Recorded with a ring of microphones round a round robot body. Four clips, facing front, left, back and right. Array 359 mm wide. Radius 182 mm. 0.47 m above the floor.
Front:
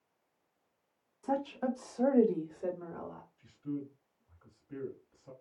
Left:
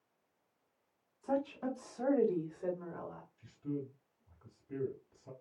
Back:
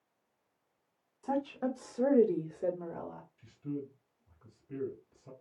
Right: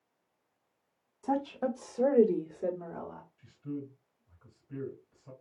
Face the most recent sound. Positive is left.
turn(degrees=140)